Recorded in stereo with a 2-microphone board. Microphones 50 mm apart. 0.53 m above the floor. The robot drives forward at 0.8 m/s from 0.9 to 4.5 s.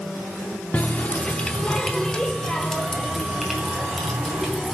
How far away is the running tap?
About 0.6 m.